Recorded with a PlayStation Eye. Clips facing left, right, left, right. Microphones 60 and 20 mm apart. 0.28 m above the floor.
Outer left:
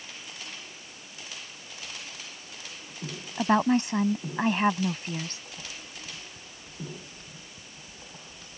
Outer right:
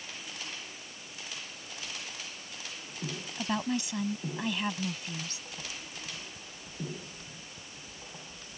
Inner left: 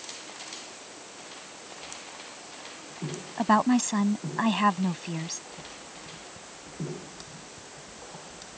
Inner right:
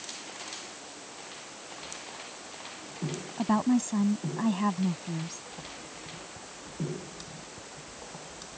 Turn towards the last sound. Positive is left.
turn(degrees=45)  # may be behind; listen again after turning